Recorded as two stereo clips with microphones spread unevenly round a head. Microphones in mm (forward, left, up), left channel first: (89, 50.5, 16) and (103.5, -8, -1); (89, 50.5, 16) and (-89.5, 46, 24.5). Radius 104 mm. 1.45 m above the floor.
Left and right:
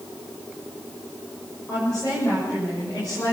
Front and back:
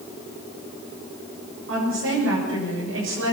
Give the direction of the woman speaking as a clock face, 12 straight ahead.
6 o'clock.